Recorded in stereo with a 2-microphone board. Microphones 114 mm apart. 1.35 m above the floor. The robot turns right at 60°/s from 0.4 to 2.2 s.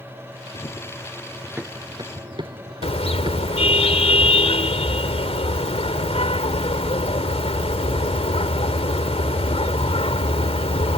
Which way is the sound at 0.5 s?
50° left (ahead or behind).